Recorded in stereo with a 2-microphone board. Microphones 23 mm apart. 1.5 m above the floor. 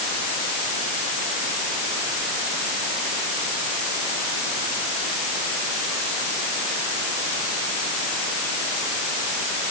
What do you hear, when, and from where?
Only background noise.